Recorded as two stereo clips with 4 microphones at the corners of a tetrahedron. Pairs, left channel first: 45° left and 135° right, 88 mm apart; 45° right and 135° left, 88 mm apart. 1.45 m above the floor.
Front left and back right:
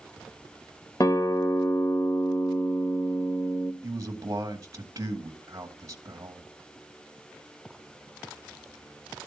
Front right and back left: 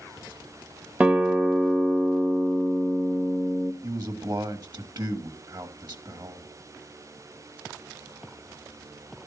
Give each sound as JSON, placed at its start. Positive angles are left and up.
{"t": 1.0, "sound": "a guitar", "azimuth_deg": 65, "distance_m": 1.5}
{"t": 3.8, "sound": "a man speaking", "azimuth_deg": 170, "distance_m": 2.5}